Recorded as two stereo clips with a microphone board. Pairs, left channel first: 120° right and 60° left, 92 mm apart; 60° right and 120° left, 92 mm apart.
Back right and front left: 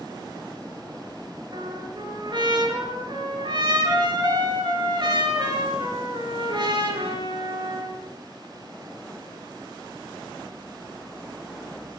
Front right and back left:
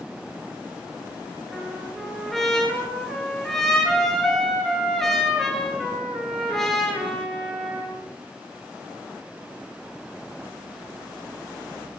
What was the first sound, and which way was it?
A trumpet, 25° left.